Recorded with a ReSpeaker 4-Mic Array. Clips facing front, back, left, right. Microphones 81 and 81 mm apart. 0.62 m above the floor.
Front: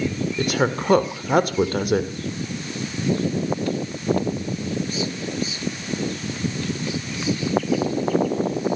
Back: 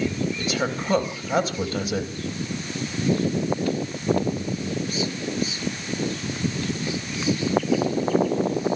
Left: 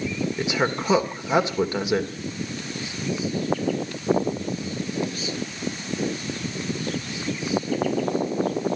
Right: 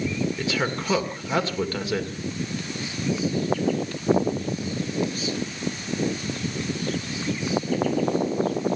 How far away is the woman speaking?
About 2 m.